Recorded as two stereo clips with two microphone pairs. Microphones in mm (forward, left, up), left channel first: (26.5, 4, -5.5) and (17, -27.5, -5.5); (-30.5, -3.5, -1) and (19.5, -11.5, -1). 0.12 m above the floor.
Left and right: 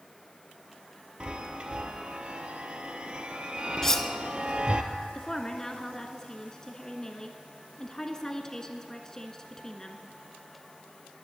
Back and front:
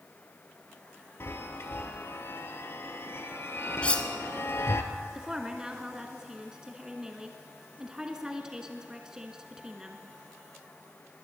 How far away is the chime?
About 1.1 m.